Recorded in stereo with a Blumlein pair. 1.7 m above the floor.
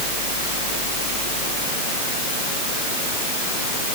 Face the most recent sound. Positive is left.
No sound to turn to.